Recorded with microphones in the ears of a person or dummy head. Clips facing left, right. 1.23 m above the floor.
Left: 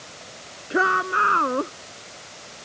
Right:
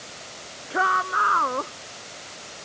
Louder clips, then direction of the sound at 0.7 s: Left 3 dB; 35° left (ahead or behind).